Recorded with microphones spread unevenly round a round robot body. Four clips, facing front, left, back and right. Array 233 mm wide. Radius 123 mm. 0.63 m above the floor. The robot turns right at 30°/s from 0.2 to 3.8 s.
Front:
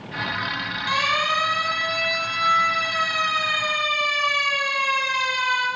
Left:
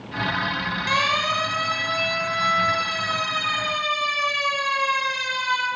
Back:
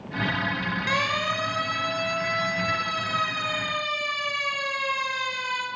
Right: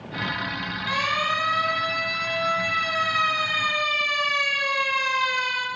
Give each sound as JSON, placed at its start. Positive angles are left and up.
{"t": 0.9, "sound": "a siren", "azimuth_deg": 160, "distance_m": 9.0}